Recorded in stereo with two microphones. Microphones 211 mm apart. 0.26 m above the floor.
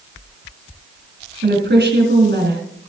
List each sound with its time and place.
1.4 s a woman speaking: 60° right (ahead or behind), 2.5 m